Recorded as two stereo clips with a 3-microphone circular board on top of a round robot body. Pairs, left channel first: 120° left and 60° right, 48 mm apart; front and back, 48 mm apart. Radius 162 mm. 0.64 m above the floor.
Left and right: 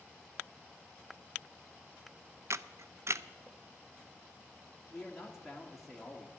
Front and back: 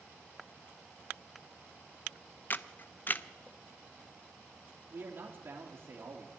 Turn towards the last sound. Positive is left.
turn(degrees=-150)